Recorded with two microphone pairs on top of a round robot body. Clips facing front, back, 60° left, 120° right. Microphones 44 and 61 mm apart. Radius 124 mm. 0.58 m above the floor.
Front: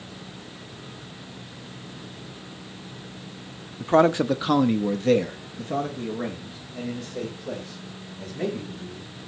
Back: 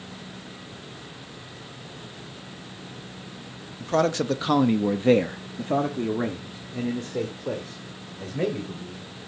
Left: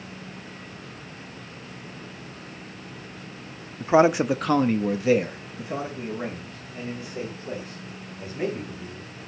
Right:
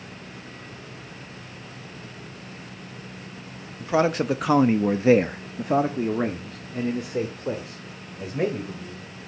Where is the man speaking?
50° left, 0.7 m; by 9.1 s 130° right, 3 m.